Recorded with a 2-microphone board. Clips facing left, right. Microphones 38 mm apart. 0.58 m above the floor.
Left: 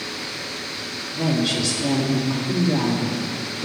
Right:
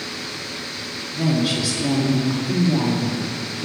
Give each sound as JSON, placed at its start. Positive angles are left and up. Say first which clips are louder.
{"t": 1.1, "sound": "a woman speaking", "louder": "right 1 dB", "side_deg": -5, "distance_m": 0.8}